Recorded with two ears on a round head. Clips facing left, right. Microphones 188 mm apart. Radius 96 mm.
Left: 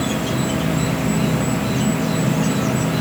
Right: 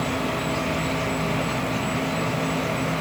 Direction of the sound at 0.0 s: 80° left.